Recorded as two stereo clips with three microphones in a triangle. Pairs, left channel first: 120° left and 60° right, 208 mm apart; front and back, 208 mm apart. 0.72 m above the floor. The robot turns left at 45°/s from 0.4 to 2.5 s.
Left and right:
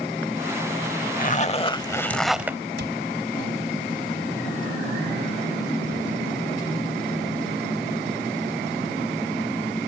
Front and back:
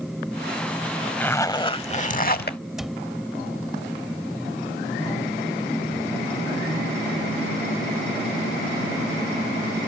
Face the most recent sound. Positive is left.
turn(degrees=-90)